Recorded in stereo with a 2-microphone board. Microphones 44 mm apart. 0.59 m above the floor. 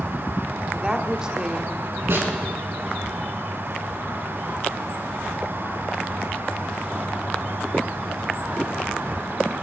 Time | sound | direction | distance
0.7 | a woman speaking | 20° right (ahead or behind) | 1.0 m
2.1 | a snare drum | 60° right (ahead or behind) | 2.5 m